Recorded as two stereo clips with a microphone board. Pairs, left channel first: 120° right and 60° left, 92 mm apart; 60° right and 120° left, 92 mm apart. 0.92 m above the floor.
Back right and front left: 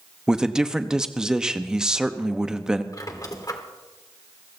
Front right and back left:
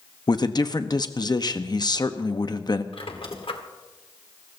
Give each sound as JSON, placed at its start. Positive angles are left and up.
{"t": 0.3, "sound": "a man speaking", "azimuth_deg": -20, "distance_m": 0.9}
{"t": 2.9, "sound": "a squeak", "azimuth_deg": -70, "distance_m": 1.5}